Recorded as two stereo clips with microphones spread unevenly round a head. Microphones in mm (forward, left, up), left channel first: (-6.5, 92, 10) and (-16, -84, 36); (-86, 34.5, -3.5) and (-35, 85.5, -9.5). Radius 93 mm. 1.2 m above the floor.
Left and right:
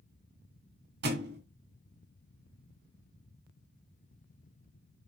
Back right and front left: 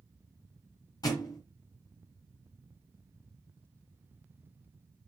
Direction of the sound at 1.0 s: 100° right.